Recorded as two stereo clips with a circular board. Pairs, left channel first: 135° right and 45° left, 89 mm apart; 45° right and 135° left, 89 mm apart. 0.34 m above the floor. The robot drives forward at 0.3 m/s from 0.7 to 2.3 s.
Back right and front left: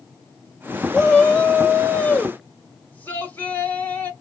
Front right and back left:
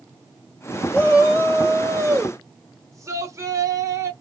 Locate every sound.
0.9 s a shout: 155° left, 1.3 m; by 4.1 s 165° left, 1.6 m